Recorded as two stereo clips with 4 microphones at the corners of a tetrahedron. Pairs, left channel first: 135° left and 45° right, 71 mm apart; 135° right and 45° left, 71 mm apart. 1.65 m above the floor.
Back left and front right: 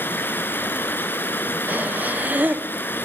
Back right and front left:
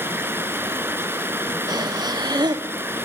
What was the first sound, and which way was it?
Running water, 85° left.